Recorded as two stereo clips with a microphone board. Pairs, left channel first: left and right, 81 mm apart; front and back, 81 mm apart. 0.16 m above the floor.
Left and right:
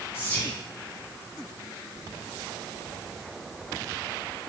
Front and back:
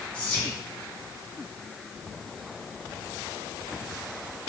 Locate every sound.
0.1 s whispering: 55° left, 1.4 m